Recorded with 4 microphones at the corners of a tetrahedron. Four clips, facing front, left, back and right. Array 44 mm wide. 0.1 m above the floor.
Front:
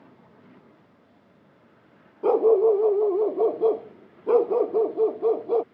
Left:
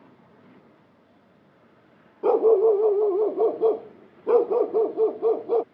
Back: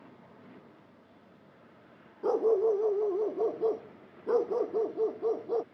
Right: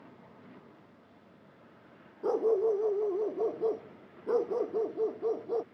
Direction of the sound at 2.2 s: 50° left.